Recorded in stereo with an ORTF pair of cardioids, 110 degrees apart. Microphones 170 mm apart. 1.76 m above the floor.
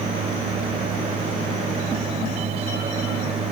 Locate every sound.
0.0 s a machine running: 40° right, 4 m